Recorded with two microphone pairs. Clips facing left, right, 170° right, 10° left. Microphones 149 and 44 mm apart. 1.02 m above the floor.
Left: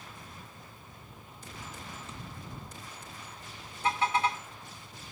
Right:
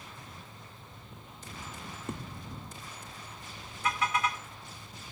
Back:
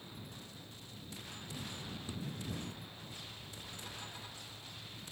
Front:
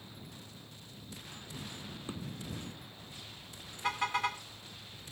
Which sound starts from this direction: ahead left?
A car horn, at 3.8 s.